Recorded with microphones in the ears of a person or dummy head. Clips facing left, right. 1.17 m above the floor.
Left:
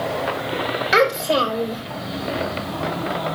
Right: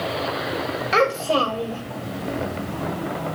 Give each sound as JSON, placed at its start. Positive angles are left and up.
{"t": 0.9, "sound": "a child speaking", "side_deg": 15, "distance_m": 4.0}